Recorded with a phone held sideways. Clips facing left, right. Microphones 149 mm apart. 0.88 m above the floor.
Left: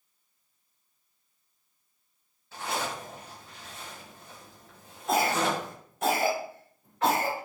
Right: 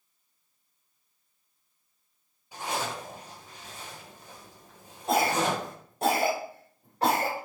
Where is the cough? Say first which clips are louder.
Right 1 dB; 35° right (ahead or behind), 4 m.